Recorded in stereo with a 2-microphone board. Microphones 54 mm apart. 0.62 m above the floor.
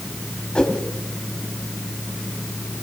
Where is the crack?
I don't hear a crack.